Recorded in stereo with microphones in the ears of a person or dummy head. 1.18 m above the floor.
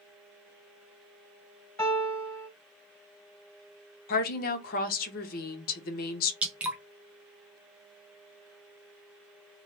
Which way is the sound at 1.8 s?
15° left (ahead or behind).